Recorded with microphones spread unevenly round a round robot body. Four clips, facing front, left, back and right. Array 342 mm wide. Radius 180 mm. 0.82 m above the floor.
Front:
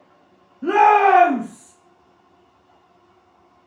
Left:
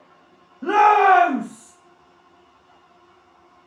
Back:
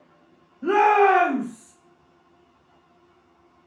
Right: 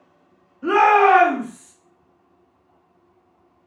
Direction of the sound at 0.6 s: 60° left.